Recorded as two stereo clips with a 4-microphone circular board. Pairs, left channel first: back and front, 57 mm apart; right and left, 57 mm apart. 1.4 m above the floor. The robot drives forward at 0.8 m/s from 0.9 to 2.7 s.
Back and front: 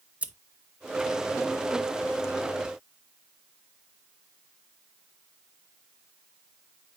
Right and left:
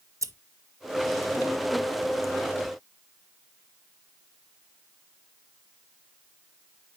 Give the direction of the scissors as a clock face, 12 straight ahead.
10 o'clock.